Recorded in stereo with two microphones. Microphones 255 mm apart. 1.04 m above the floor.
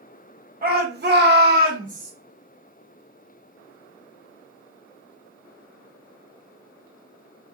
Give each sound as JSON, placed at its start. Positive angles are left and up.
{"t": 0.6, "sound": "a shout", "side_deg": -35, "distance_m": 0.9}